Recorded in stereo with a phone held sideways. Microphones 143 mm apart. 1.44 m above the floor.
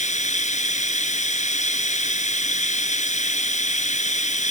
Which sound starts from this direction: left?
Running water, at 0.0 s.